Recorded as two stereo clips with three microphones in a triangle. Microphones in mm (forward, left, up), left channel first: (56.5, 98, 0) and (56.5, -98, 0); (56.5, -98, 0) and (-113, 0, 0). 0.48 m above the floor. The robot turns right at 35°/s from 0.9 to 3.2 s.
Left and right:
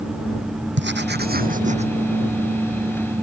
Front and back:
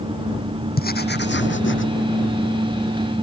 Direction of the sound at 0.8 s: 70° right.